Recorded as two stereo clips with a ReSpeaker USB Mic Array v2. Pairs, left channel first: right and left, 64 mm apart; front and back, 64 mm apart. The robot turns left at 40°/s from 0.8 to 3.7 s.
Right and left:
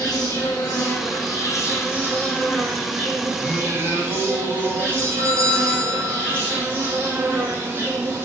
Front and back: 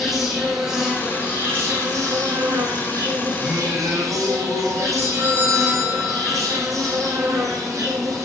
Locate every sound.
0.0 s an insect: 95° right, 7 m; by 8.2 s 145° left, 7 m
3.4 s singing: 160° left, 7.5 m; by 4.9 s 150° left, 7.5 m
5.0 s a doorbell: 130° left, 7 m